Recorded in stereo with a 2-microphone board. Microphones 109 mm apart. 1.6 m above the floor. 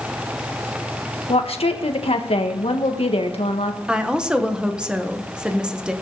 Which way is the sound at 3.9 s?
5° right (ahead or behind).